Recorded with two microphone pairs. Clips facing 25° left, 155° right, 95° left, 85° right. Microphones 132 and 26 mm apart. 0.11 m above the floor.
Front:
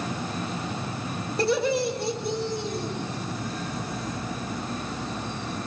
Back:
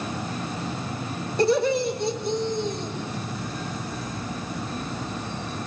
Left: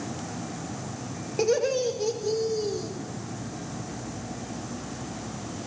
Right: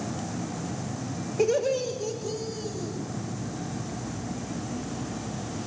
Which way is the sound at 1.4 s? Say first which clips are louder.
Back 3 dB, left 1 dB; 115° left.